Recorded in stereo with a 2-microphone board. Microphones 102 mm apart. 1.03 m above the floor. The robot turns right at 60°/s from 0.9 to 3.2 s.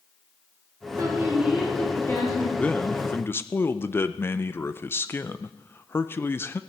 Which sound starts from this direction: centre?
A man speaking, at 2.6 s.